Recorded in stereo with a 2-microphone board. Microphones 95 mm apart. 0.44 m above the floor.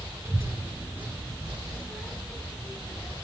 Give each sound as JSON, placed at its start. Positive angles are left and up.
{"t": 0.2, "sound": "a child speaking", "side_deg": -30, "distance_m": 4.0}